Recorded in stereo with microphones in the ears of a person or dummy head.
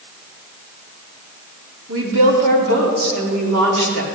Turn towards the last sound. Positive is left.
turn(degrees=-80)